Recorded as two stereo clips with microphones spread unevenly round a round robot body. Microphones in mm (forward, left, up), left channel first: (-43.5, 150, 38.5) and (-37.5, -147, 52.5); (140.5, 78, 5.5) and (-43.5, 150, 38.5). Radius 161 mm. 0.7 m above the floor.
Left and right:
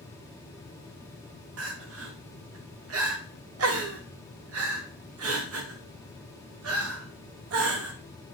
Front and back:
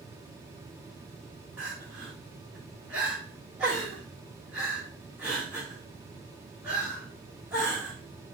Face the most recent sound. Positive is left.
turn(degrees=-110)